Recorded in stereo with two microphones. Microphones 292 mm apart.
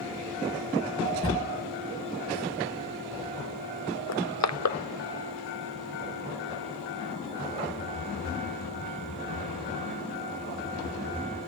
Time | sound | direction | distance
1.2 | a drawer | 35° right (ahead or behind) | 9.5 m
4.1 | crushing | 70° left (ahead or behind) | 0.6 m